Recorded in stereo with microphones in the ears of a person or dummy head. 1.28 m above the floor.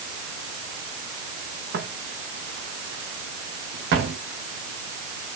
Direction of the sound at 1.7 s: 65° right (ahead or behind).